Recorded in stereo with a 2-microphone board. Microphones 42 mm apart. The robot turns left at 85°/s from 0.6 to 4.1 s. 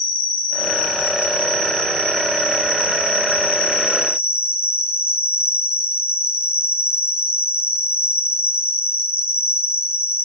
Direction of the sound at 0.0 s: 165° right.